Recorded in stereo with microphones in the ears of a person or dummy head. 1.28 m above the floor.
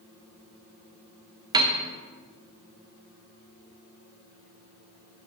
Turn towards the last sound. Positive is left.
turn(degrees=-20)  # may be behind; listen again after turning